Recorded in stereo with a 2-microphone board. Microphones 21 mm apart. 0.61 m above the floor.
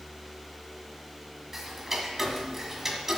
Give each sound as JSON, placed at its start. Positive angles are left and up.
{"t": 1.5, "sound": "ticking", "side_deg": -20, "distance_m": 1.5}